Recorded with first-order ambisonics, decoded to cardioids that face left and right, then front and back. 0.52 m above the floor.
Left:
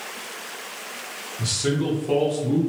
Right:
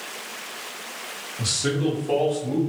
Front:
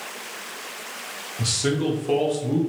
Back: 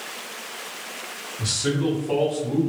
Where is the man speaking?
35° right, 0.8 m; by 2.6 s 30° left, 1.1 m.